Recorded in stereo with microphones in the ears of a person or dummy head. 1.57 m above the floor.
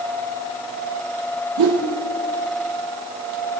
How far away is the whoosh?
About 0.9 m.